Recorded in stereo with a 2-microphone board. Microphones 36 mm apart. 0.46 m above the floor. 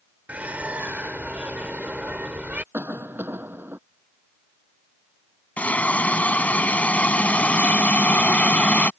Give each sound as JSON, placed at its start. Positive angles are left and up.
{"t": 0.3, "sound": "a bird", "side_deg": -45}
{"t": 2.7, "sound": "a cough", "side_deg": -75}
{"t": 5.6, "sound": "a hiss", "side_deg": 45}